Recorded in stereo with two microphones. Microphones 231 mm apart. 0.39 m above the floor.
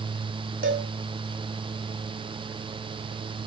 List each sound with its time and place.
0.6 s a cowbell: 65° right (ahead or behind), 3 m